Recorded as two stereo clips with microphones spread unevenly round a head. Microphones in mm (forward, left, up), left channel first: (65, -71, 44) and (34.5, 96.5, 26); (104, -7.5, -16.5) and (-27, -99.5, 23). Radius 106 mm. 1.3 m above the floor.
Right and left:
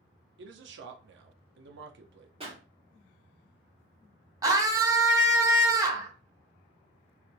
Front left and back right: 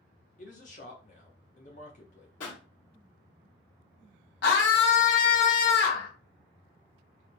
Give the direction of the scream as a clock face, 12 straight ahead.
11 o'clock.